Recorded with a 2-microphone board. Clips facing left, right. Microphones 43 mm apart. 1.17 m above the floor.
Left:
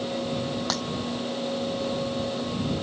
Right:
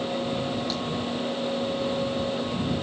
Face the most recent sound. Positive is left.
turn(degrees=85)